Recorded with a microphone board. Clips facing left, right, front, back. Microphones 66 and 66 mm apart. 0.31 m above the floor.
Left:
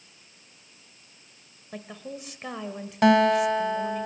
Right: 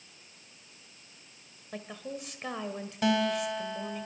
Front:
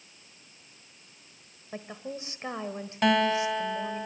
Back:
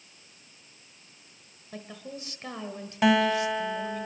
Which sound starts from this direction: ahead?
A woman speaking, at 1.7 s.